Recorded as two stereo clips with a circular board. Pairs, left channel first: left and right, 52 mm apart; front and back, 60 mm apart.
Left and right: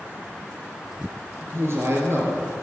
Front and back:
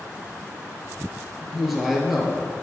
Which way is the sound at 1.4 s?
90° right.